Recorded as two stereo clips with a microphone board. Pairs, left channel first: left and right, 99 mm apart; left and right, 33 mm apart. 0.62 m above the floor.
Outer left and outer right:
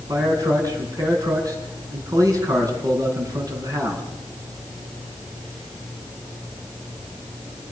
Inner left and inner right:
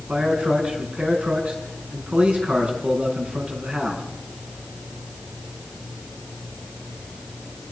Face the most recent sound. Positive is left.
turn(degrees=-35)  # may be behind; listen again after turning